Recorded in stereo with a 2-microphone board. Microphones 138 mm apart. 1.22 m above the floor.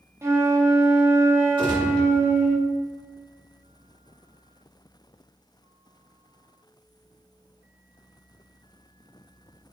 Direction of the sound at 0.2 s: 20° right (ahead or behind).